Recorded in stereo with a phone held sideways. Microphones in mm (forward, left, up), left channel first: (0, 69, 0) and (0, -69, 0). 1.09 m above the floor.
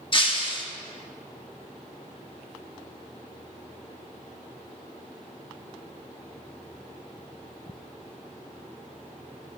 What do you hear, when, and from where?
0.1 s breaking glass: 35° left (ahead or behind), 1.3 m